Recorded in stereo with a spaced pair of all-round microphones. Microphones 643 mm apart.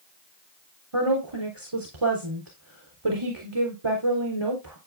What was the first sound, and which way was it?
A woman speaking, 40° right (ahead or behind).